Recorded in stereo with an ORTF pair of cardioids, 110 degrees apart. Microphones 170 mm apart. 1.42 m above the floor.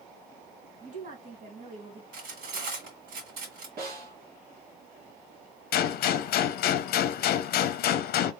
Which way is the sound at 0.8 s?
50° right.